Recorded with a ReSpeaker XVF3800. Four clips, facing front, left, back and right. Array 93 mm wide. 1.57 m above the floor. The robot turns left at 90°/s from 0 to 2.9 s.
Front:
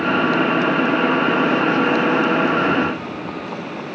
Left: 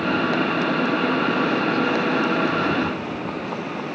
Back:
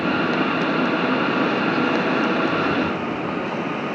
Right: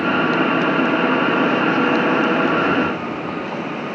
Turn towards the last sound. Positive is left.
No sound to turn to.